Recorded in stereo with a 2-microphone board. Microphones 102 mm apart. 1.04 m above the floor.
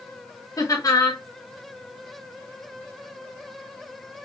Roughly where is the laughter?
Left.